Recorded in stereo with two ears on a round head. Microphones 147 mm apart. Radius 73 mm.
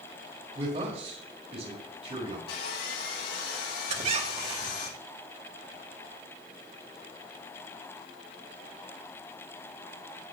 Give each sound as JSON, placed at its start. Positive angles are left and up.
{"t": 0.6, "sound": "a man speaking", "side_deg": -40, "distance_m": 5.0}
{"t": 2.5, "sound": "sawing", "side_deg": 70, "distance_m": 7.0}
{"t": 3.9, "sound": "a squeak", "side_deg": -45, "distance_m": 2.0}